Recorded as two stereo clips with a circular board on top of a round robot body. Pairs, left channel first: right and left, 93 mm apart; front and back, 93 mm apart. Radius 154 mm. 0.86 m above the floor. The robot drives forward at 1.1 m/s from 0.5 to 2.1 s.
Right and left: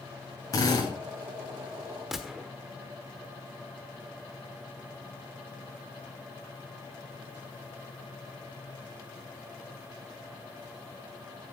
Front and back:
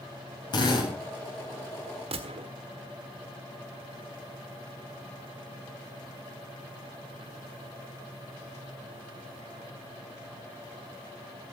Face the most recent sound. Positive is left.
turn(degrees=175)